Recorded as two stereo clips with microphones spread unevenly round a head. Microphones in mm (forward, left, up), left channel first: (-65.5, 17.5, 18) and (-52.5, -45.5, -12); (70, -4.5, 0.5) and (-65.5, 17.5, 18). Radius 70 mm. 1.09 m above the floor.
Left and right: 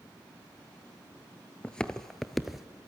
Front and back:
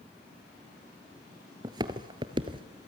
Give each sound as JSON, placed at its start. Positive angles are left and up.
{"t": 1.6, "sound": "footsteps", "azimuth_deg": 135, "distance_m": 1.4}